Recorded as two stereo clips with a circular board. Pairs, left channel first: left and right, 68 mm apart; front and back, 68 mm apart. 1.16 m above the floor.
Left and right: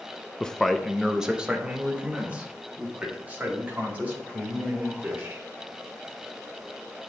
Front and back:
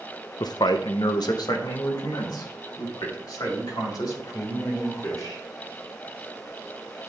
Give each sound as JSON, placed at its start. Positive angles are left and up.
{"t": 0.4, "sound": "a man speaking", "azimuth_deg": 15, "distance_m": 0.5}